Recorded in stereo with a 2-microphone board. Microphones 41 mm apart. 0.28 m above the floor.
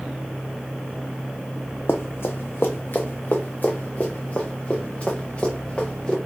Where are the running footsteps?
75° left (ahead or behind), 0.8 m; by 6.2 s 25° left (ahead or behind), 2.5 m.